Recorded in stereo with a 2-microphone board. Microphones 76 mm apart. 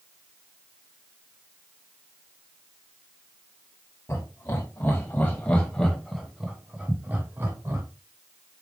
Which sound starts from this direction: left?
Laughter, at 4.1 s.